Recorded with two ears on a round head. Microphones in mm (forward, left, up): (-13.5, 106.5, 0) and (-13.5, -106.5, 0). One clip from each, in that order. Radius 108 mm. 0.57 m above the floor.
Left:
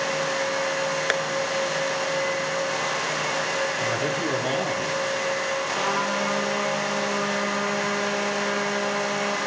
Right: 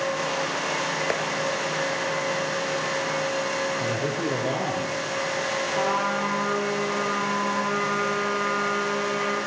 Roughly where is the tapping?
Left.